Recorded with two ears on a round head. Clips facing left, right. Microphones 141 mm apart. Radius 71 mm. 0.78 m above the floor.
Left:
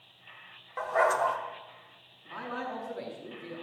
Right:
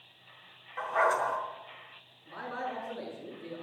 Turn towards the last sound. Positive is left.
turn(degrees=85)